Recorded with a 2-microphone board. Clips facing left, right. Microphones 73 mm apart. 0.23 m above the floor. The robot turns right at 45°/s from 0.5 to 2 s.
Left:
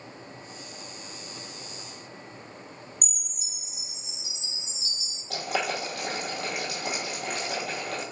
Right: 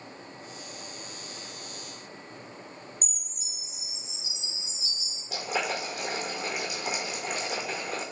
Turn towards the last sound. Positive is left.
turn(degrees=80)